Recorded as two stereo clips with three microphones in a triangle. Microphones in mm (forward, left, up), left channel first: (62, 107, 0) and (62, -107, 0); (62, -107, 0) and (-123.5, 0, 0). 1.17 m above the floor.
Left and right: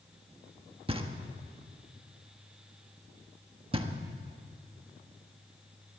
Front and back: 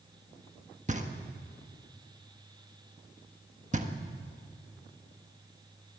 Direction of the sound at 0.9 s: 155° right.